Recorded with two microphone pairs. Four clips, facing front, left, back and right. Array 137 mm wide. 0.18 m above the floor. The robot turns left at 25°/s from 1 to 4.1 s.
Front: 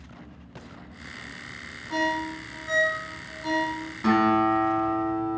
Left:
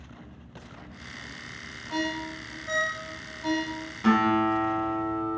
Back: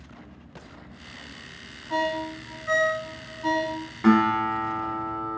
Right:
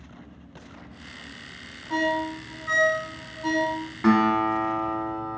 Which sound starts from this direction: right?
A ringtone, at 1.9 s.